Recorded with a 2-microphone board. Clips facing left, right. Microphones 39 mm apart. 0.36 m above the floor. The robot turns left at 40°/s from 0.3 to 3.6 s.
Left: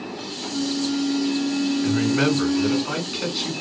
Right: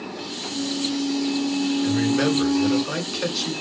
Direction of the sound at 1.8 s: 75° left.